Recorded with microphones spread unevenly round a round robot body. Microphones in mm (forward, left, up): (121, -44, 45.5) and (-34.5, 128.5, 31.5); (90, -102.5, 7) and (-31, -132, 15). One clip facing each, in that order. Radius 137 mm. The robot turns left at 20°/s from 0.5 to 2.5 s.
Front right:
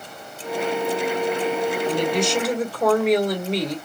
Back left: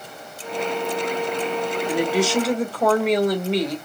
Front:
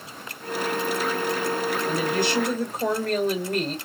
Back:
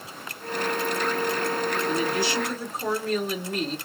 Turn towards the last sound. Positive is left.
turn(degrees=45)